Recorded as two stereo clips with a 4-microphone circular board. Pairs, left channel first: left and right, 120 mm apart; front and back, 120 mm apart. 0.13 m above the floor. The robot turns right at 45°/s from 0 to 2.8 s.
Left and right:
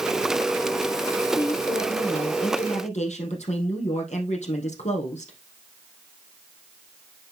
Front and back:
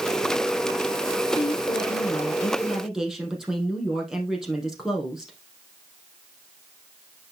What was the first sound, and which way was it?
A woman speaking, 30° left.